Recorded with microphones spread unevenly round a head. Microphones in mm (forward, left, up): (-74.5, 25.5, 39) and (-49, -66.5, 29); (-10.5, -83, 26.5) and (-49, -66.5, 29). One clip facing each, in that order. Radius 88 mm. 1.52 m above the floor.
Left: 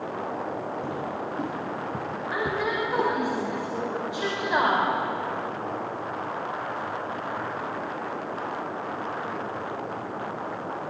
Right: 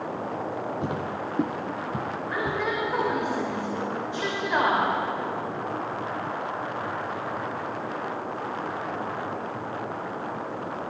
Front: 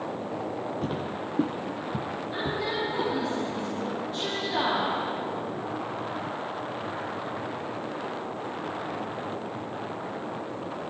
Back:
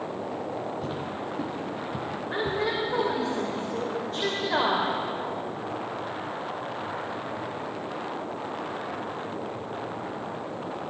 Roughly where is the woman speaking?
Behind.